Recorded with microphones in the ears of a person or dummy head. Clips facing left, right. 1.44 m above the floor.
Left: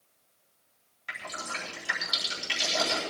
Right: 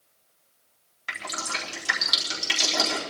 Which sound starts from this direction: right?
Dripping, at 1.1 s.